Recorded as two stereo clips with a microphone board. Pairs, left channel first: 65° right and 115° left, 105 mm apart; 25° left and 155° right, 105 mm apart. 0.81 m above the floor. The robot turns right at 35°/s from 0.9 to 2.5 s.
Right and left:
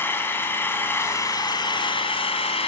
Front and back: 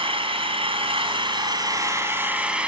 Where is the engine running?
135° right, 3.5 m; by 2.7 s 80° right, 3.5 m.